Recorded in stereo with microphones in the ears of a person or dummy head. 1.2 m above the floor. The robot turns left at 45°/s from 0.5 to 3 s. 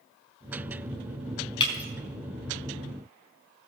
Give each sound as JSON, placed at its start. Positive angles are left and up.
{"t": 1.6, "sound": "breaking glass", "side_deg": 25, "distance_m": 4.5}